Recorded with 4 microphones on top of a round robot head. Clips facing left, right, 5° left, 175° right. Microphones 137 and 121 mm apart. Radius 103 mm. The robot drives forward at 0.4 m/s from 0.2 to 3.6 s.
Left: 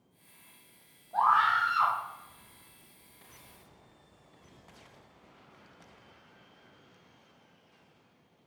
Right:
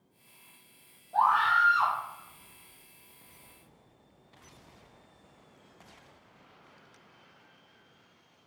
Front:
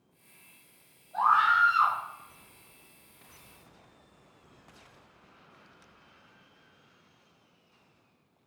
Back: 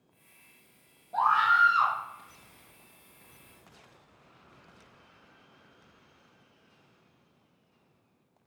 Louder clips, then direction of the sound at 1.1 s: Right 1 dB, even; 175° right.